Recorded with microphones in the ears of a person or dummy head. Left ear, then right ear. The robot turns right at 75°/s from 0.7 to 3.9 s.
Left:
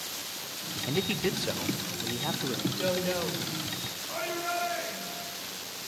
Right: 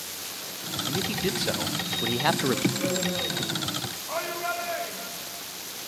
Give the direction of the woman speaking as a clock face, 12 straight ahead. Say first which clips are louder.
Right 1 dB; 11 o'clock.